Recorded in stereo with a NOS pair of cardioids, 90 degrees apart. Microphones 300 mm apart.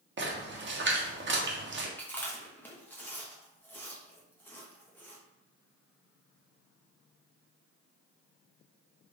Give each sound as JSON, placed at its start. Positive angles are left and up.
{"t": 0.2, "sound": "a splash", "azimuth_deg": -35, "distance_m": 1.1}
{"t": 2.0, "sound": "chewing", "azimuth_deg": 5, "distance_m": 1.1}